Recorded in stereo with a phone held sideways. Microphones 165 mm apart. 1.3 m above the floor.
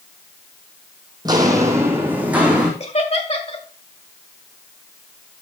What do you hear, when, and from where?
1.2 s footsteps: 25° right (ahead or behind), 2 m; by 2.7 s 5° right (ahead or behind), 3.5 m
2.8 s laughter: 40° left (ahead or behind), 2 m